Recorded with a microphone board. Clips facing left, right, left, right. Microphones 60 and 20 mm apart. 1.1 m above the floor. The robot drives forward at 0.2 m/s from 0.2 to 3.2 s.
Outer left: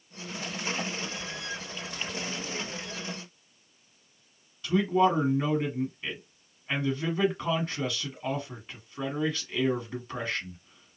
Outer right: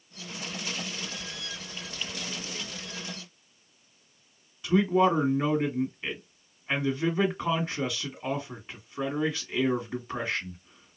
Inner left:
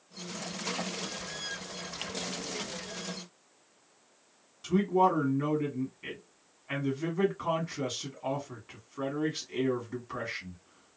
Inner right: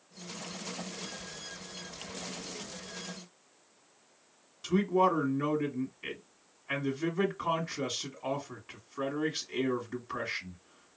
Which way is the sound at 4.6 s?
15° right (ahead or behind).